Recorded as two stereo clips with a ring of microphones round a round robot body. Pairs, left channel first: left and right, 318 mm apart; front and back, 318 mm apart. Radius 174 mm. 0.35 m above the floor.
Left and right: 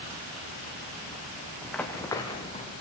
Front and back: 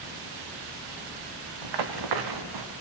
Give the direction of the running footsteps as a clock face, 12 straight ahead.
6 o'clock.